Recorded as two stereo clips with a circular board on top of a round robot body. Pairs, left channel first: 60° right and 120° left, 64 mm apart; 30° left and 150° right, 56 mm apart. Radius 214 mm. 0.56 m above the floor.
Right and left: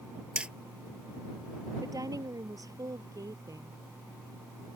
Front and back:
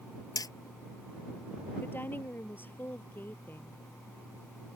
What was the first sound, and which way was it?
Hammering, 45° left.